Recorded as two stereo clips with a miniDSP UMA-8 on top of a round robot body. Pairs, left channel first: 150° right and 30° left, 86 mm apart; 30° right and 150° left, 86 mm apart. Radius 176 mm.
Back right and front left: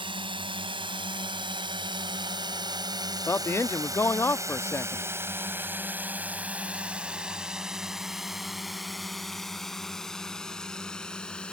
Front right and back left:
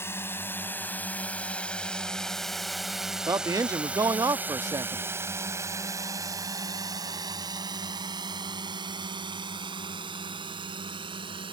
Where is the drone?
30° left; by 11.5 s 130° left.